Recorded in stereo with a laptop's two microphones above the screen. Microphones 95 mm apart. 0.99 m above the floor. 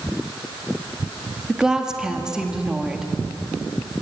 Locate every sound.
1.5 s a woman speaking: 5° right (ahead or behind), 1.6 m